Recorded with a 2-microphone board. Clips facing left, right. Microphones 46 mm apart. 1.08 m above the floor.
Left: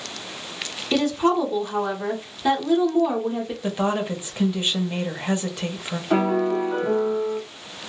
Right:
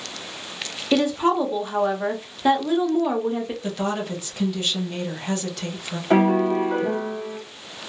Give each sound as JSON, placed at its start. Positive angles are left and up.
{"t": 0.9, "sound": "a woman speaking", "side_deg": -15, "distance_m": 0.7}
{"t": 3.6, "sound": "a woman speaking", "side_deg": 25, "distance_m": 0.7}
{"t": 6.1, "sound": "a piano", "side_deg": -35, "distance_m": 1.0}